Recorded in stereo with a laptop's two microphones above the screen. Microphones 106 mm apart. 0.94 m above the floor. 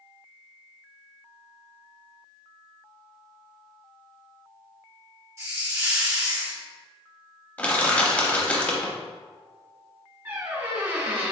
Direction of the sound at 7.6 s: 15° left (ahead or behind).